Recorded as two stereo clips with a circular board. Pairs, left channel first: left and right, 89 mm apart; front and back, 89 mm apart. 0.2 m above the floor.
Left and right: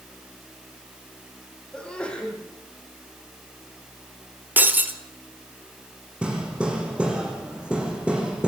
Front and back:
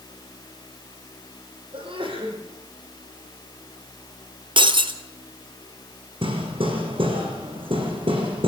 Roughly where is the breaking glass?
Behind.